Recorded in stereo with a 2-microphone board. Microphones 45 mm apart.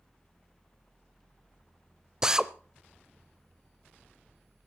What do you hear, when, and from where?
2.2 s a drill: 15° right (ahead or behind), 0.6 m